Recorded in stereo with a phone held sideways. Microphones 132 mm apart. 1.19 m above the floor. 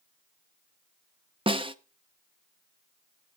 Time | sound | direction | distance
1.5 | a snare drum | 40° right (ahead or behind) | 0.7 m